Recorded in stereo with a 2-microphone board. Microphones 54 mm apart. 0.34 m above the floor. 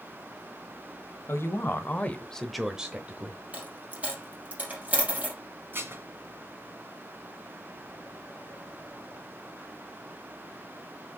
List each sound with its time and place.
1.3 s a woman speaking: 55° left (ahead or behind), 1.4 m; by 3.4 s 35° right (ahead or behind), 1.4 m
3.5 s a dropped coin: 30° right (ahead or behind), 3 m
5.7 s dishes clattering: 45° right (ahead or behind), 1.8 m